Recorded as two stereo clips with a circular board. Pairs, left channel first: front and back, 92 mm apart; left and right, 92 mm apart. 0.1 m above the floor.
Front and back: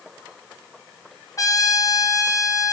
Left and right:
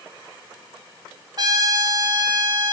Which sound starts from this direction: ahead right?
A trumpet, at 1.4 s.